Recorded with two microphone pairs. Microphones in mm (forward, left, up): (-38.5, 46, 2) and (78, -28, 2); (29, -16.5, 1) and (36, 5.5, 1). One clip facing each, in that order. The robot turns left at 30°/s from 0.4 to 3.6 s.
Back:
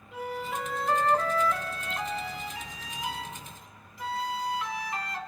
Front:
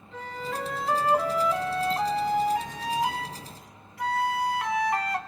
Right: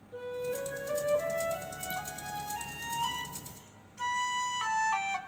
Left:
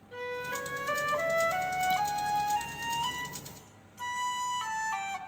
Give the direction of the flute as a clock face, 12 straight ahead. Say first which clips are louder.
Even, even; 10 o'clock.